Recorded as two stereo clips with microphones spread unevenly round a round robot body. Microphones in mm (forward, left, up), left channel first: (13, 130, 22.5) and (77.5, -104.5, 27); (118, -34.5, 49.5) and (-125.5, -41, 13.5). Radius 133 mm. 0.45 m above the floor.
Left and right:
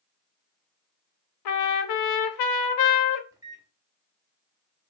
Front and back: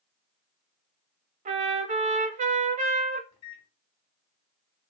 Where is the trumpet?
115° left, 0.5 m.